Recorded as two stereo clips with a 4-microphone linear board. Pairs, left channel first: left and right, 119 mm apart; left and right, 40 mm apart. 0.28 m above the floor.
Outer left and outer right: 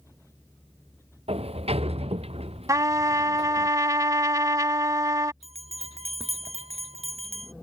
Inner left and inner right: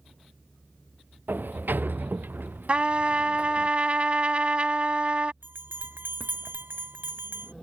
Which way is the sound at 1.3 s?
60° right (ahead or behind).